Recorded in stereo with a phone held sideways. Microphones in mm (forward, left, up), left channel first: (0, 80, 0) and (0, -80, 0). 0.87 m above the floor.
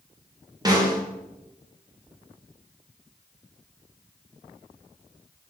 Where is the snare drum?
25° right (ahead or behind), 0.8 m.